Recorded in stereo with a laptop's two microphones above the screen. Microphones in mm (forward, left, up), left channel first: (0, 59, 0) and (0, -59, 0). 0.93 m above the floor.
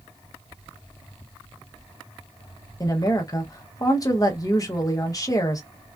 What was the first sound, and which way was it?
A woman speaking, 30° left (ahead or behind).